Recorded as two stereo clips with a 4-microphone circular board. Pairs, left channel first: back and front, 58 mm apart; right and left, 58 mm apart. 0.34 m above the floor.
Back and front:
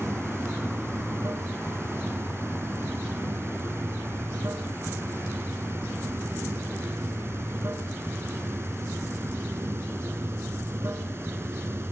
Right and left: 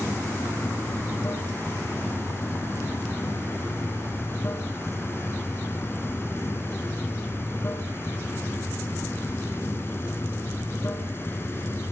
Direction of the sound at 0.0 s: 45° right.